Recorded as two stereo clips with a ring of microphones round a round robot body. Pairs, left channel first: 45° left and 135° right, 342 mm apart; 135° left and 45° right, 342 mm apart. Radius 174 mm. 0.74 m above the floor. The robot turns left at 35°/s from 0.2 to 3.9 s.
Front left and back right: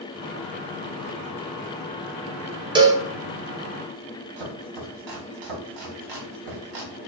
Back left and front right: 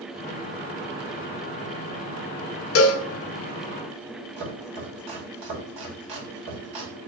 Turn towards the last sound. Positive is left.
turn(degrees=-120)